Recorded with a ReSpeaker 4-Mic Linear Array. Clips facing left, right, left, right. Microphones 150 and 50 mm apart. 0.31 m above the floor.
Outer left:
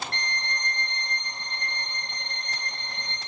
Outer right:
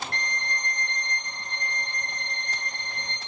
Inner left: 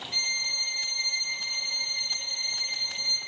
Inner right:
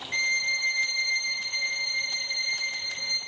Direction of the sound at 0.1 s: 45° right (ahead or behind).